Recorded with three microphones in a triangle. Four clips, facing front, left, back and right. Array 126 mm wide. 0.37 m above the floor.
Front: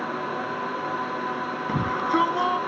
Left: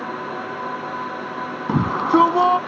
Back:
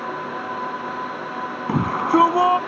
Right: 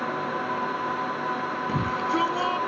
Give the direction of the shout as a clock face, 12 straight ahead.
8 o'clock.